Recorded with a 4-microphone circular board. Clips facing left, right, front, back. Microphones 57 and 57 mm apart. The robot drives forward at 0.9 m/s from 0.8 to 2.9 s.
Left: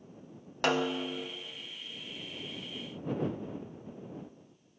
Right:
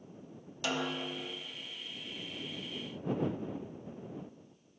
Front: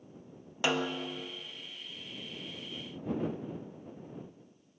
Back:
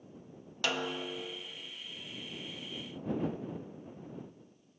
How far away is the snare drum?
About 0.5 m.